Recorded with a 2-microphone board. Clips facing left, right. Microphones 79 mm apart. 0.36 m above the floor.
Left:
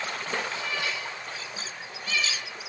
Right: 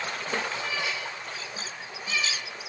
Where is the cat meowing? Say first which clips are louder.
Even; 15° right (ahead or behind), 5 m; by 2.5 s 10° right (ahead or behind), 3 m.